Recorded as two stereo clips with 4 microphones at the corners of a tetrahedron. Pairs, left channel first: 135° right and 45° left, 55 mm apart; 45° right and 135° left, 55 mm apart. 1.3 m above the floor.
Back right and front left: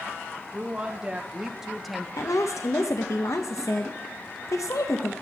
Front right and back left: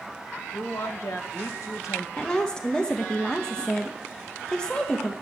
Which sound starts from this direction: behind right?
A woman speaking, at 2.2 s.